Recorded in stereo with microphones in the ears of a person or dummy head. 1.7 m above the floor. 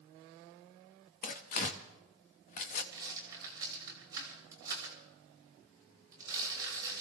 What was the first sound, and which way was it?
Tearing paper, 35° left (ahead or behind).